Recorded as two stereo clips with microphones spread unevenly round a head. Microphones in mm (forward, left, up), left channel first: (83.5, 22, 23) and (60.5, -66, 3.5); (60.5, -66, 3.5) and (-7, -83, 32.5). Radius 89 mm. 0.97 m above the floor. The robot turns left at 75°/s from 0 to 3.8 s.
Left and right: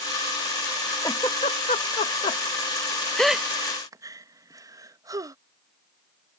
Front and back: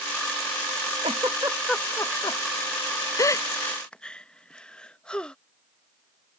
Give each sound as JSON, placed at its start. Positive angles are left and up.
{"t": 1.0, "sound": "a giggle", "azimuth_deg": 150}